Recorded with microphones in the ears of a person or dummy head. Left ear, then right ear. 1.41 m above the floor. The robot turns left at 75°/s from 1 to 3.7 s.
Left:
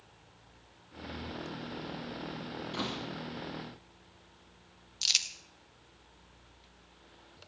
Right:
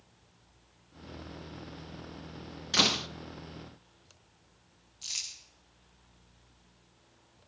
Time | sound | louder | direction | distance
2.7 | a door slam | right 13 dB | 50° right (ahead or behind) | 0.5 m
5.0 | crumpling | left 9 dB | 65° left (ahead or behind) | 1.2 m